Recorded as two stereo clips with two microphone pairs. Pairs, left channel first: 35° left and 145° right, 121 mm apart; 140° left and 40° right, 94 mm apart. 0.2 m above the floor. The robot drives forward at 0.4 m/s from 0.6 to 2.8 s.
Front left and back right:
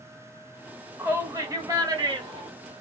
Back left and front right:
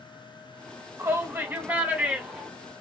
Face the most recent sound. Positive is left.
turn(degrees=-125)